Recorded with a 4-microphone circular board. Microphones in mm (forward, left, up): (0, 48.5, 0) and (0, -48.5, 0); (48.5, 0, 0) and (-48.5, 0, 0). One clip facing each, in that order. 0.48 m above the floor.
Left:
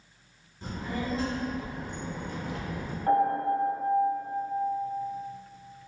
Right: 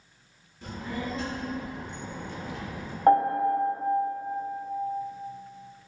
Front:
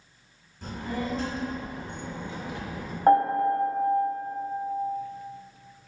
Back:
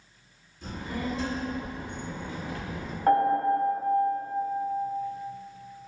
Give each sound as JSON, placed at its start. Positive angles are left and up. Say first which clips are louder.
{"t": 0.6, "sound": "a child speaking", "louder": "left 1 dB, front 1 dB", "azimuth_deg": 35, "distance_m": 1.6}
{"t": 3.1, "sound": "a piano", "louder": "right 4 dB, front 2 dB", "azimuth_deg": -60, "distance_m": 0.7}